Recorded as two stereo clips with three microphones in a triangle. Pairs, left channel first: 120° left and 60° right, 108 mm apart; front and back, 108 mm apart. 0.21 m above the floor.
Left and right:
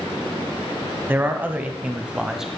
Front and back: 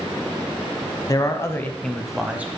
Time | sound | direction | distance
1.1 | a man speaking | 5° right | 1.3 m